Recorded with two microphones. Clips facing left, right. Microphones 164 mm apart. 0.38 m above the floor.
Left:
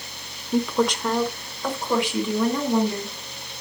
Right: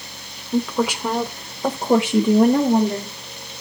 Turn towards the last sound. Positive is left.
turn(degrees=-55)  # may be behind; listen again after turning